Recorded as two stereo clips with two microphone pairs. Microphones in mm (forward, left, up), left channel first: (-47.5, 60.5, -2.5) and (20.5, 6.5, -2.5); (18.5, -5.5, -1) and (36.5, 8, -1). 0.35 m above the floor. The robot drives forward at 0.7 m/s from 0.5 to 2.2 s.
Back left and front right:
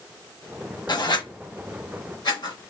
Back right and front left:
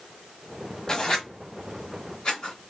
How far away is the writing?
About 1.1 m.